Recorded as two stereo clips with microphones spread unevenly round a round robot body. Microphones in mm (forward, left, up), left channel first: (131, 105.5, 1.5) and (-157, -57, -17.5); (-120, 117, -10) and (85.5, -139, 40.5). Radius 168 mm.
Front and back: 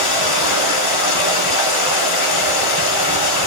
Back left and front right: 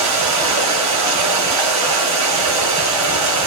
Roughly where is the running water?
Ahead.